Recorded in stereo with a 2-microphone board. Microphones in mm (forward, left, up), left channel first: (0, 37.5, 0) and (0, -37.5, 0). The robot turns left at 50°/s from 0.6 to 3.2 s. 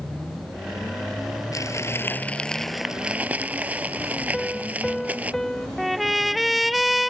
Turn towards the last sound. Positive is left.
turn(degrees=0)  # may be behind; listen again after turning